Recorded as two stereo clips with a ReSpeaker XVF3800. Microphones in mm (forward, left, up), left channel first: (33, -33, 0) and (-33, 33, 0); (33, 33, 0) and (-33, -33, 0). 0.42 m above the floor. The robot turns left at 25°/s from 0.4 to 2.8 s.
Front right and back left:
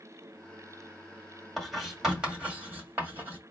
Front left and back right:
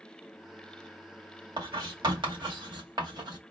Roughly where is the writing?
Behind right.